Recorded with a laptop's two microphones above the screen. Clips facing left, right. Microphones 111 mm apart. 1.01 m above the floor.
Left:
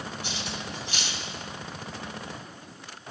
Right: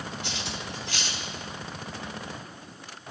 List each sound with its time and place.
0.2 s cutlery clinking: 80° right, 2 m